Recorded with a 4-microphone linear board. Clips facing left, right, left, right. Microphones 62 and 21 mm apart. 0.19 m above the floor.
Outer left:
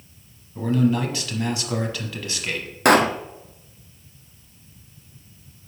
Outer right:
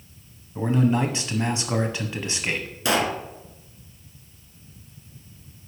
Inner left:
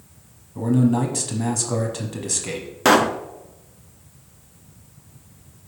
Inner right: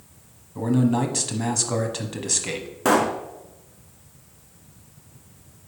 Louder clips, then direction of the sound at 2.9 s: Outer left 7 dB, inner left 4 dB; 60° left (ahead or behind).